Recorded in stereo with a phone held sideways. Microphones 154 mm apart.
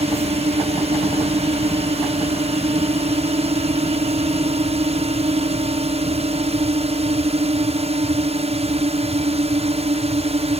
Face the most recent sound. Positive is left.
turn(degrees=-45)  # may be behind; listen again after turning